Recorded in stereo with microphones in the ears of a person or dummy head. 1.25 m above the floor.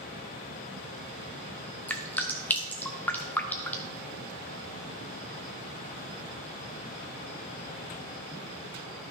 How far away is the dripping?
About 0.5 m.